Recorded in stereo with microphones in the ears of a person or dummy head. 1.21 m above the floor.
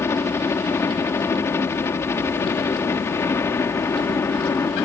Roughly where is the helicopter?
Centre.